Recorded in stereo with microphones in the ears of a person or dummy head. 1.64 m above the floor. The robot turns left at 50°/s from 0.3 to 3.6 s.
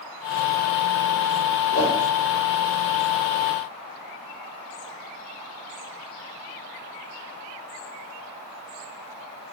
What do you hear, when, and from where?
1.7 s a whoosh: 45° left (ahead or behind), 1.5 m; by 1.9 s 35° left (ahead or behind), 1.5 m